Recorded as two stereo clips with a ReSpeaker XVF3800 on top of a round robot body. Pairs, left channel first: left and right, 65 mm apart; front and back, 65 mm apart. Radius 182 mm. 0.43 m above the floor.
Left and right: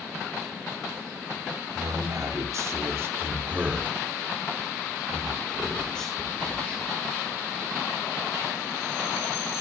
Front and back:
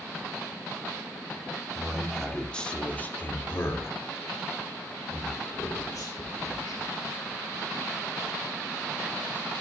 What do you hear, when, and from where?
1.8 s a man speaking: 90° right, 2.5 m; by 6.9 s 20° left, 3.5 m